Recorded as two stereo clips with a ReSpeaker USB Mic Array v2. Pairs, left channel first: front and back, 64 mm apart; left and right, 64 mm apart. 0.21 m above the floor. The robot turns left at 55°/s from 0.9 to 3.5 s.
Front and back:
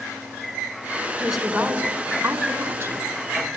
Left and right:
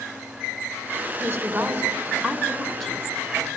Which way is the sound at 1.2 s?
90° right.